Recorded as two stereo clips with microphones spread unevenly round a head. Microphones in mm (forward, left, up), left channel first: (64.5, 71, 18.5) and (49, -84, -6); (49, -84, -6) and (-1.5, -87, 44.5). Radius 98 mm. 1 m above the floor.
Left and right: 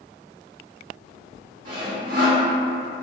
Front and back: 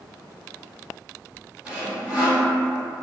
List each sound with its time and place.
1.6 s sawing: 145° right, 1.0 m